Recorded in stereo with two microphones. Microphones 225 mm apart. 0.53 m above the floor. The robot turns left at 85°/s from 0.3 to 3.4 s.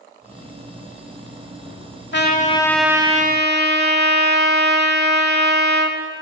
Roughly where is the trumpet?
Ahead left.